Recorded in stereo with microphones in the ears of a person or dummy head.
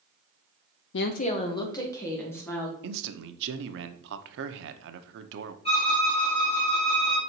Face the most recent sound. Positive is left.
turn(degrees=35)  # may be behind; listen again after turning